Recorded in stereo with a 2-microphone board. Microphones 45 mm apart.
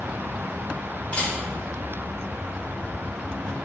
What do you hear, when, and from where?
1.1 s a camera shutter: 25° left (ahead or behind), 3.5 m